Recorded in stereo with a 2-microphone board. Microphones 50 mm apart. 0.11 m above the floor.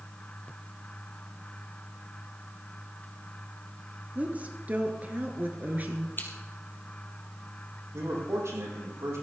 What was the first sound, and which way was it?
A woman speaking, 30° right (ahead or behind).